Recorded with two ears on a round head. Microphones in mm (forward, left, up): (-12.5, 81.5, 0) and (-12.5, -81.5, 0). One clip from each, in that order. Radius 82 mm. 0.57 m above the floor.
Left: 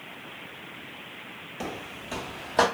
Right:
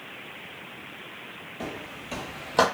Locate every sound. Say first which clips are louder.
1.6 s footsteps: left 1 dB; 25° left (ahead or behind), 0.6 m; by 2.6 s 20° right (ahead or behind), 0.8 m